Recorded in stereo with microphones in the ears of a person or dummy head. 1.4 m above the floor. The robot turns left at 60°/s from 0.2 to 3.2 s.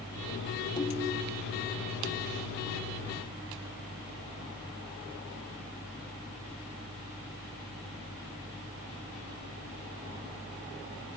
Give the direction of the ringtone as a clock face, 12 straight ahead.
11 o'clock.